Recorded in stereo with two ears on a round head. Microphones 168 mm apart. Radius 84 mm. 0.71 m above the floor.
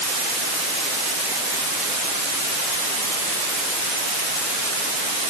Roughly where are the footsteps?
No footsteps in this recording.